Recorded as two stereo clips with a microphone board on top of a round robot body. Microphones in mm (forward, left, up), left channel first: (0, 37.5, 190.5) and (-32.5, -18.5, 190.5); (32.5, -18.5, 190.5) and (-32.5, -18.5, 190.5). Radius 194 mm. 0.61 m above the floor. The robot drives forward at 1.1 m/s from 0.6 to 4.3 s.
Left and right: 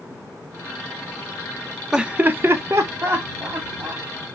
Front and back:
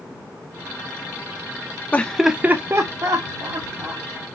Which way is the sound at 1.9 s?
45° right.